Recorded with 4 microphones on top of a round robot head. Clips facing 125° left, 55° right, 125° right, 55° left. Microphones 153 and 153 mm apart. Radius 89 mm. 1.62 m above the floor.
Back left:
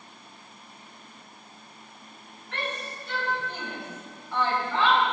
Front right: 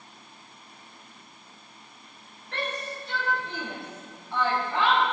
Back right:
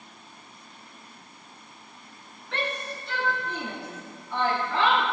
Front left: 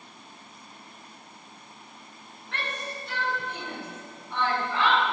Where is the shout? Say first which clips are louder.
Front right 2 dB, back right 4 dB; 110° right, 3 m; by 5.0 s 130° right, 4 m.